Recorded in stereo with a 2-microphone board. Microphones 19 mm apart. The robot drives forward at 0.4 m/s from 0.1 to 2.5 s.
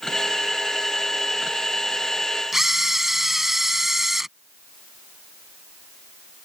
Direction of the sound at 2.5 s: 15° right (ahead or behind).